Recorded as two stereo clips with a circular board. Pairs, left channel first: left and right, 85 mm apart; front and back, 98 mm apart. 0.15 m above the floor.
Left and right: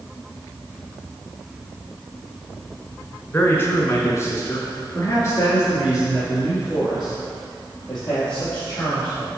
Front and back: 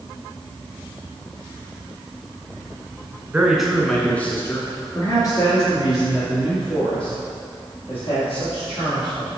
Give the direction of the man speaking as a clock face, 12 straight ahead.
8 o'clock.